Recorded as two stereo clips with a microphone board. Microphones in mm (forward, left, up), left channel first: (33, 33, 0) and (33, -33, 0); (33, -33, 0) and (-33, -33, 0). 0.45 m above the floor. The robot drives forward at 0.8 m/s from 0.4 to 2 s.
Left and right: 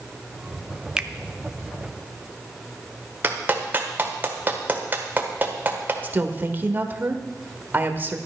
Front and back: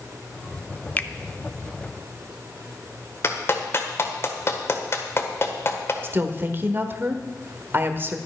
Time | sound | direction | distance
1.0 | a finger snap | 25° right | 0.6 m
3.2 | a clap | 35° right | 1.6 m
6.0 | a woman speaking | 140° right | 1.2 m